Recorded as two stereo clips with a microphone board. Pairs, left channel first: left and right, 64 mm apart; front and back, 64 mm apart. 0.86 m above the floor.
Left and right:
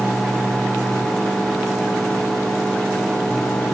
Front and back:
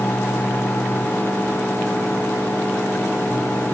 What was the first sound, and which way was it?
Only background noise.